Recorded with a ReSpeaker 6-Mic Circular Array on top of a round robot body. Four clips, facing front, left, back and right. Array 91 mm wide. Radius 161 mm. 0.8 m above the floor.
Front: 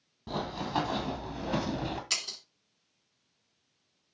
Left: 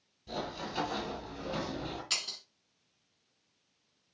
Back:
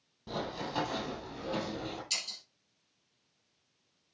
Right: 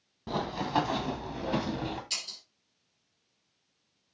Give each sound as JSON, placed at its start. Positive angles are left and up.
{"t": 0.3, "sound": "running footsteps", "azimuth_deg": -85, "distance_m": 1.7}
{"t": 2.1, "sound": "breaking glass", "azimuth_deg": 45, "distance_m": 1.3}